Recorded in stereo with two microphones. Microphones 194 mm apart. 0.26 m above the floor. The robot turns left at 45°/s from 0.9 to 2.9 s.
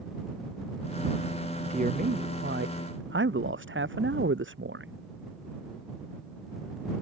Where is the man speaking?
35° right; by 4.9 s 90° right.